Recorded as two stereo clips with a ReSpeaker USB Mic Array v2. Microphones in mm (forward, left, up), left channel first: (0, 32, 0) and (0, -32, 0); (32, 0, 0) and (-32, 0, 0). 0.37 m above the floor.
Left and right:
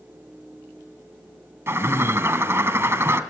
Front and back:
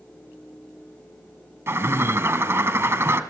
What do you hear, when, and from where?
1.7 s a bird: 135° right, 1.4 m